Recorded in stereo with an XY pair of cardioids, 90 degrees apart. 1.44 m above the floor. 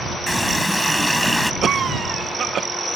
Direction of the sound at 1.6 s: 55° right.